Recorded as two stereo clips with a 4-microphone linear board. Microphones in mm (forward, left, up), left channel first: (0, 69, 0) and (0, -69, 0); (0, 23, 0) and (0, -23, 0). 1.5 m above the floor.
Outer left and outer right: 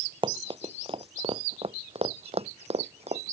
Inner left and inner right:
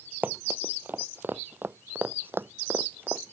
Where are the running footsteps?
35° right (ahead or behind); by 3.3 s 50° right (ahead or behind).